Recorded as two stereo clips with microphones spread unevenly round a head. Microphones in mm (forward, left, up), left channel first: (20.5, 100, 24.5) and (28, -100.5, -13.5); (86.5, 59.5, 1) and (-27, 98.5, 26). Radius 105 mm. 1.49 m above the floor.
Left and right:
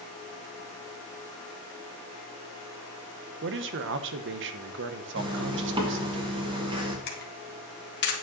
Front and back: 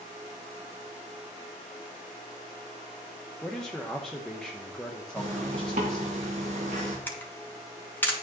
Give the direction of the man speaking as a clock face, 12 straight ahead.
3 o'clock.